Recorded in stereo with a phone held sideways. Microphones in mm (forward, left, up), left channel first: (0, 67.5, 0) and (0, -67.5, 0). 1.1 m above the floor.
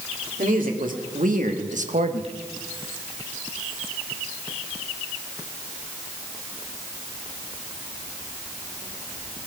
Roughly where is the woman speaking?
Right.